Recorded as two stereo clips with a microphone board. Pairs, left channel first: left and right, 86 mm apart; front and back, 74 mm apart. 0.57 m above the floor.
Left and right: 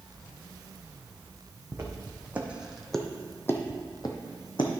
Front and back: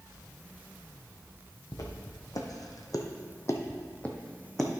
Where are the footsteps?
30° right, 1.5 m; by 4.7 s 85° left, 1.3 m.